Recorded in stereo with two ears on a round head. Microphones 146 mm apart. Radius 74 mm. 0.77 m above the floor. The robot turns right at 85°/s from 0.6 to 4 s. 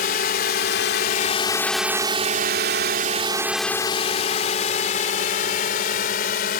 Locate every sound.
0.0 s a drone: 55° left (ahead or behind); by 6.6 s 60° left (ahead or behind)